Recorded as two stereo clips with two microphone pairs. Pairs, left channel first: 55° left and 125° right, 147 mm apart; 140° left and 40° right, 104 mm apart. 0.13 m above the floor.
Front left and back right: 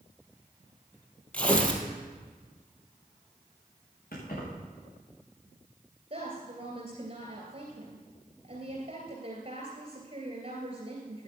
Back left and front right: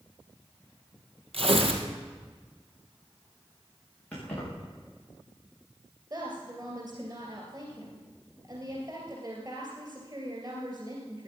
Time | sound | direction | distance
1.3 | tearing paper | 25° right | 2 m
4.1 | keys jangling | 65° left | 8.5 m
6.1 | a woman speaking | 80° right | 2.5 m